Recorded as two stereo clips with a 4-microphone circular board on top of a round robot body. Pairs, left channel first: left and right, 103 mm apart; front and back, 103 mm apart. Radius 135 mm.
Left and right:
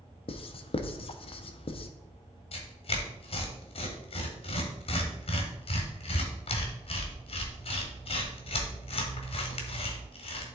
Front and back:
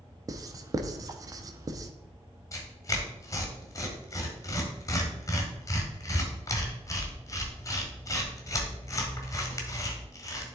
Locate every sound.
0.3 s writing: 125° left, 0.6 m
2.5 s tearing paper: 60° left, 1.2 m